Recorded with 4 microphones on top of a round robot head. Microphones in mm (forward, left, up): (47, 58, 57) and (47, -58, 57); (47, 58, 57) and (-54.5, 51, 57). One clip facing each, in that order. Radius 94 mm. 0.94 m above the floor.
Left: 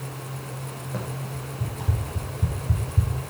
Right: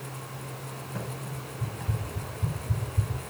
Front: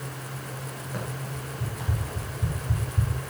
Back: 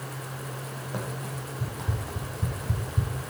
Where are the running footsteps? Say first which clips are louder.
Left 4 dB, back 1 dB; 120° left, 4 m; by 3.1 s 125° left, 2.5 m.